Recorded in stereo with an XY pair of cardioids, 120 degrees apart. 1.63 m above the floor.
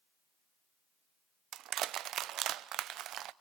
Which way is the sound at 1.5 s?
70° right.